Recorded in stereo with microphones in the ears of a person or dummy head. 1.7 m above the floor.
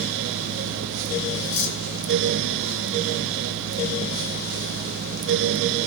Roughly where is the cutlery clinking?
Left.